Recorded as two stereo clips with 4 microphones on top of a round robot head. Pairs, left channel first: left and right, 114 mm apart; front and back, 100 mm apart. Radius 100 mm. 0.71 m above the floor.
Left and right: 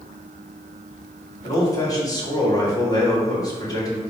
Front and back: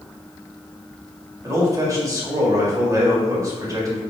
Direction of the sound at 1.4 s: 135° left.